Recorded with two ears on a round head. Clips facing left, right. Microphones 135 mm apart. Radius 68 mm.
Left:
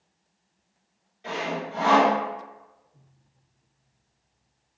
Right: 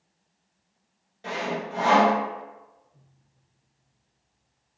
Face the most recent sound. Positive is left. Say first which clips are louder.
# even
turn(degrees=-50)  # may be behind; listen again after turning